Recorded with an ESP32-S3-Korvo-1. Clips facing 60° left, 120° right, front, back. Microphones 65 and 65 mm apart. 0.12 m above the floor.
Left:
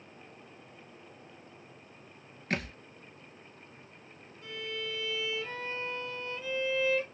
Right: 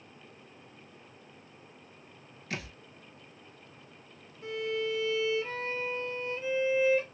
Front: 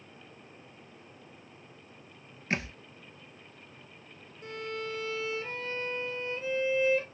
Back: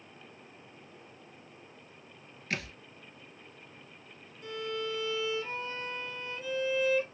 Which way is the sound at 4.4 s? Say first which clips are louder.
Right 7 dB, back 1 dB; 55° right.